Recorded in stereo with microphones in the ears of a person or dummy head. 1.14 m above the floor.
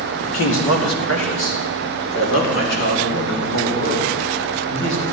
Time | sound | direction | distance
0.3 | a man speaking | 80° left | 2.5 m